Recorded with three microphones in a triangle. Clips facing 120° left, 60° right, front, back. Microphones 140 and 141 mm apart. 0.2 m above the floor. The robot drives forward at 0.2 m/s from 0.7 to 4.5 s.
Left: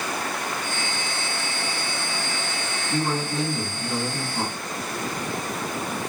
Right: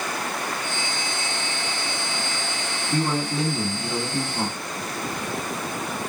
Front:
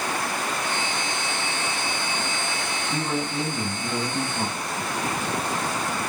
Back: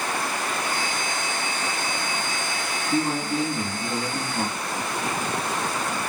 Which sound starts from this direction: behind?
A man speaking, at 2.9 s.